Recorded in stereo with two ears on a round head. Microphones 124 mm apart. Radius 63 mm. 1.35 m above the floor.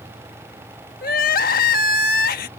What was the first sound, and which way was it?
Crying, 70° left (ahead or behind).